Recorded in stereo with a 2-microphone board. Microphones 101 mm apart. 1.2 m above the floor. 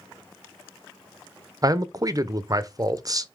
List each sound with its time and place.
1.6 s a man speaking: 35° right (ahead or behind), 0.5 m